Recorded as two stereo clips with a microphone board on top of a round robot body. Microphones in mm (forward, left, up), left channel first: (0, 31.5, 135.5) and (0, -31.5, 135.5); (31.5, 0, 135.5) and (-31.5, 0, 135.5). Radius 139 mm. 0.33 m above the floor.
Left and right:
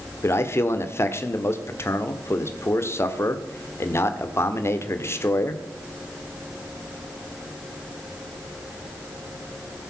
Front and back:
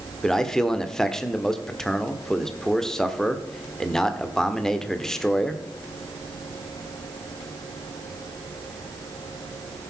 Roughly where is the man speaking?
Left.